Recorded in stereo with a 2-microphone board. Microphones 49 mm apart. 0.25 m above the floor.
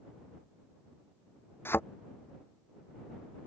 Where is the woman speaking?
No woman speaking in this recording.